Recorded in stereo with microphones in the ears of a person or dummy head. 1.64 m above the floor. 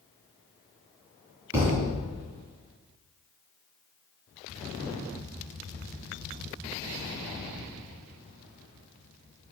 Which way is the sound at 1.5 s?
20° right (ahead or behind).